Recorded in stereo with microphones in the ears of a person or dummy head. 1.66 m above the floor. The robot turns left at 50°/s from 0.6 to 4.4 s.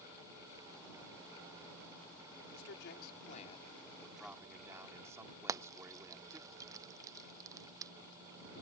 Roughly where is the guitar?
No guitar in this recording.